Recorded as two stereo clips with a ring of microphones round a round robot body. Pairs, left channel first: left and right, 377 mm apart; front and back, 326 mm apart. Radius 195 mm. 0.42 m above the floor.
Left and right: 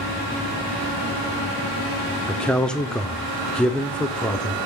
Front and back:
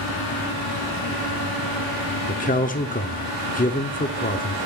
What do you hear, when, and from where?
2.3 s a man speaking: 5° left, 0.8 m